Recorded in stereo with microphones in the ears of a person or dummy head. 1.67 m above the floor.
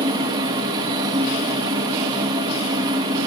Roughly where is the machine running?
Right.